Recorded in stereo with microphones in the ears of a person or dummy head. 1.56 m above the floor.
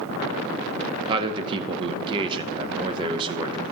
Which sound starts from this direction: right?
A man speaking, at 1.1 s.